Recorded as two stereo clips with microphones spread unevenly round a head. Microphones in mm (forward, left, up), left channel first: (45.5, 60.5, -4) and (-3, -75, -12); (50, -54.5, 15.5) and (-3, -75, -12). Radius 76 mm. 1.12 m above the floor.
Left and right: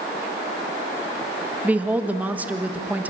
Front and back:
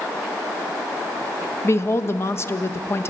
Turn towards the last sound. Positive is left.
turn(degrees=-30)